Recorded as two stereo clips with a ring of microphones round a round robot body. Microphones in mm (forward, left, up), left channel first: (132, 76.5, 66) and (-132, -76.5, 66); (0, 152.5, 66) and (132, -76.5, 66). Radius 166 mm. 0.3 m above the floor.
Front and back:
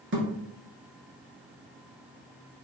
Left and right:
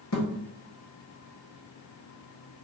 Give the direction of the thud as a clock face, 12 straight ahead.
7 o'clock.